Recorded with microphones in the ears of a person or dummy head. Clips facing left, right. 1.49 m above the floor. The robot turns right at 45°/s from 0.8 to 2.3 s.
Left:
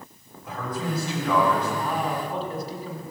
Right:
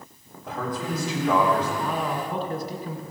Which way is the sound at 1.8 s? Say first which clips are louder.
Even; 70° right (ahead or behind).